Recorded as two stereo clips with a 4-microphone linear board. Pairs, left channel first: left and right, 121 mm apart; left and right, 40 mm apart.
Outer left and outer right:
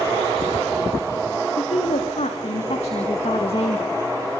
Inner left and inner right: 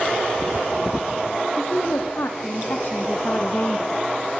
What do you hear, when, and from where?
1.6 s a woman speaking: 65° left (ahead or behind), 3.5 m; by 4.0 s 45° left (ahead or behind), 1.6 m